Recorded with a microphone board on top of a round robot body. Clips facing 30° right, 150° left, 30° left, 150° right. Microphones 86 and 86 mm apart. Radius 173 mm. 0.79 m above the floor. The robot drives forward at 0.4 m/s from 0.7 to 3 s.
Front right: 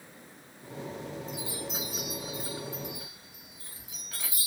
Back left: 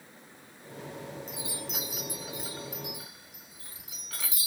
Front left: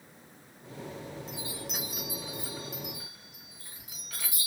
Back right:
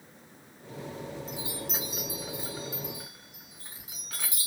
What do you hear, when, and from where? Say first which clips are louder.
1.3 s a chime: front right 2 dB, back right 3 dB; 135° left, 1.2 m; by 4.5 s 150° left, 1.8 m